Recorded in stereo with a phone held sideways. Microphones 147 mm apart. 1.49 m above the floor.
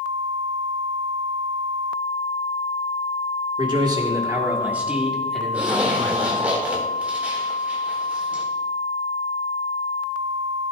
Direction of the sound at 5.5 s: 10° right (ahead or behind).